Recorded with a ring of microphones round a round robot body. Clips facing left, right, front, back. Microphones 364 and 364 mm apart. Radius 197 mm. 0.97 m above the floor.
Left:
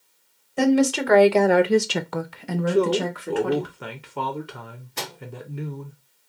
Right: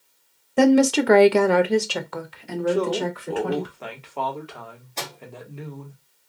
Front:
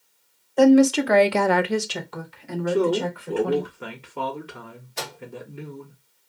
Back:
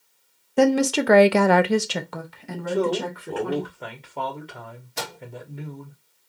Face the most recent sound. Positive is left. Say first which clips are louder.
# even, back 1 dB
turn(degrees=160)